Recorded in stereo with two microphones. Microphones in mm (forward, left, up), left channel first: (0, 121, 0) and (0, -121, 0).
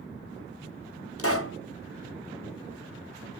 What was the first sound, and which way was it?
A pop, 65° left (ahead or behind).